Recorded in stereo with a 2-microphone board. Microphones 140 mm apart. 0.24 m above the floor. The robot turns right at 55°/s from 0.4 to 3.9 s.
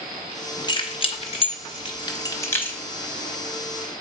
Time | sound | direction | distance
0.7 | keys jangling | 30° left (ahead or behind) | 0.9 m